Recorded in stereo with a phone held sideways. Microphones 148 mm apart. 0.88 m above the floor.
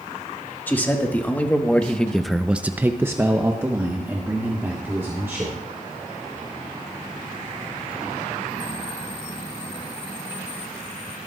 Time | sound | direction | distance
0.7 | a man speaking | 15° left (ahead or behind) | 2 m